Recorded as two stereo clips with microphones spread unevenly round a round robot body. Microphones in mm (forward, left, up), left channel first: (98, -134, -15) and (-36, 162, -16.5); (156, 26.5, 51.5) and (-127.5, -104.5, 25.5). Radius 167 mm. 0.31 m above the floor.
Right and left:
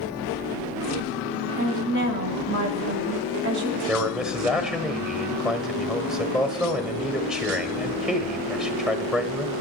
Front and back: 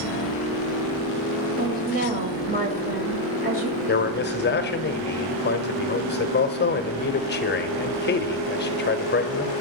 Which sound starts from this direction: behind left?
A woman speaking, at 1.6 s.